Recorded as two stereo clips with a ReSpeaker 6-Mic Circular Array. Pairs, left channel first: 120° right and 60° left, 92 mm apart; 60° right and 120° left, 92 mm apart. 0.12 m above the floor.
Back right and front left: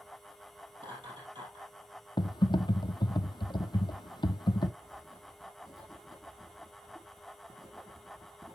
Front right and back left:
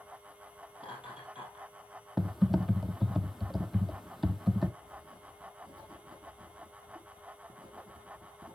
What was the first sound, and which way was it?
Laughter, 40° left.